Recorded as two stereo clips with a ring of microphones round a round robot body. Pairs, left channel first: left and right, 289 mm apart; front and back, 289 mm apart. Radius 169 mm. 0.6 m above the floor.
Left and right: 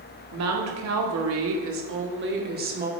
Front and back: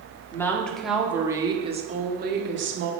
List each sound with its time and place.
0.3 s a woman speaking: 80° right, 1.5 m; by 2.9 s 145° right, 1.4 m